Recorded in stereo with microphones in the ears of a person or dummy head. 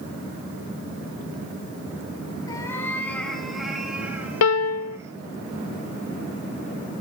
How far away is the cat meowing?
About 3.5 m.